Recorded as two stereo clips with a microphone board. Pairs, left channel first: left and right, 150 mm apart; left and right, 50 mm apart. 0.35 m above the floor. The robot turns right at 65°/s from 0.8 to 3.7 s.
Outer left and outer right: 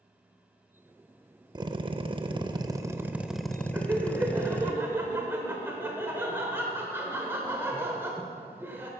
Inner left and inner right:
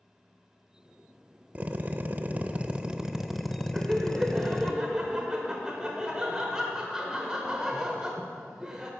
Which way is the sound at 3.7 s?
15° right (ahead or behind).